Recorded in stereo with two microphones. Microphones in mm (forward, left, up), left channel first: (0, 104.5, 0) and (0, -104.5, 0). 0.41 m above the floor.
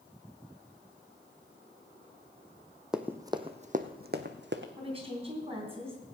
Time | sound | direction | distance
2.9 | running footsteps | 5° right (ahead or behind) | 0.9 m
4.8 | a woman speaking | 30° right (ahead or behind) | 3.5 m